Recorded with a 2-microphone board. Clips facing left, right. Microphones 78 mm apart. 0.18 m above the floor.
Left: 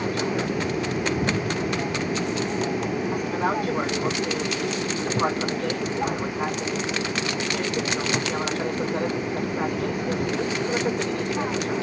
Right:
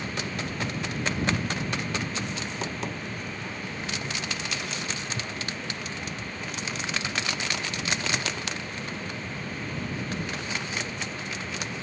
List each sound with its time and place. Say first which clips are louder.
0.0 s an aircraft: left 8 dB; 80° left